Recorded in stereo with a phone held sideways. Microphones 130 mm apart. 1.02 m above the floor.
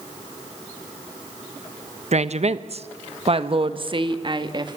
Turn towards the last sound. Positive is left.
turn(degrees=-35)  # may be behind; listen again after turning